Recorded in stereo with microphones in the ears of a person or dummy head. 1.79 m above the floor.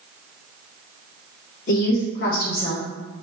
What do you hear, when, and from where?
1.7 s a woman speaking: 50° left (ahead or behind), 1.3 m